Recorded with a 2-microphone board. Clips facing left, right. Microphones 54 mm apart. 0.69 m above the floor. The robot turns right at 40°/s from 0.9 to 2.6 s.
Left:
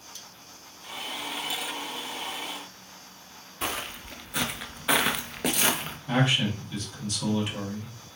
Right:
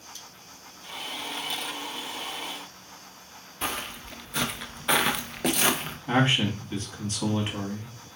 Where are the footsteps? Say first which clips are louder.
Even; 5° left (ahead or behind), 0.8 m; by 6.0 s centre (ahead or behind), 0.9 m.